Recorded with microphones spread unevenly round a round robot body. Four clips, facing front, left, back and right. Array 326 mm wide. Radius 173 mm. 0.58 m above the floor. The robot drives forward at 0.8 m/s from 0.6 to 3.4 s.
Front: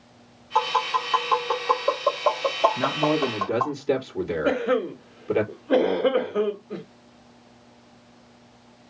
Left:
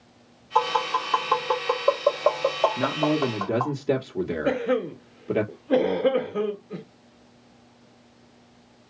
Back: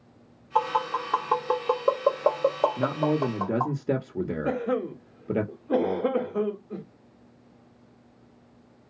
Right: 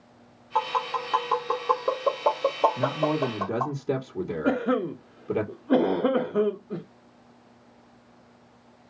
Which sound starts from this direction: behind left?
A man speaking, at 2.8 s.